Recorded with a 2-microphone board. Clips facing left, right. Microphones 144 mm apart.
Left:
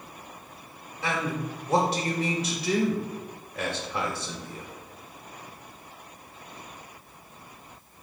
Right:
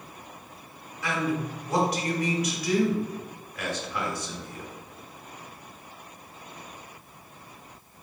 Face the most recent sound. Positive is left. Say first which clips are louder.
# right 2 dB
turn(degrees=30)  # may be behind; listen again after turning